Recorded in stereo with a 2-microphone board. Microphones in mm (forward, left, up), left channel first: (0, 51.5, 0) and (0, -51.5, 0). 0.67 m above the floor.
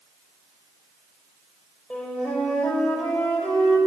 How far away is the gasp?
No gasp in this recording.